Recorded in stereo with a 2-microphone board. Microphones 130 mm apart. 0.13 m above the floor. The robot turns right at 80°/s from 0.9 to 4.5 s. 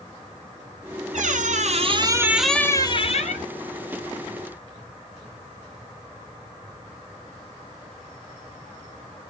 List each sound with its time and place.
1.1 s a squeak: 105° right, 0.6 m; by 3.5 s 85° left, 0.6 m